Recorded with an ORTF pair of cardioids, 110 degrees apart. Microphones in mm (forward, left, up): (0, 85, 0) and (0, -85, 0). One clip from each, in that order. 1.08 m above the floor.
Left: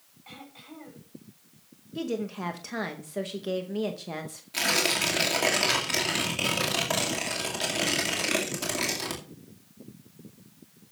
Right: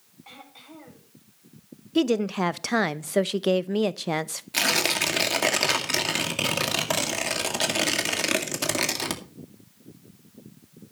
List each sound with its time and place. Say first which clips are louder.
0.2 s throat clearing: even; 10° right, 6 m
1.9 s a woman speaking: right 9 dB; 65° right, 0.7 m
4.5 s tearing paper: right 2 dB; 35° right, 2 m